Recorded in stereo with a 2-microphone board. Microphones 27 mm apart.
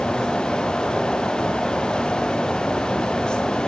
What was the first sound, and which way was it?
Only background noise.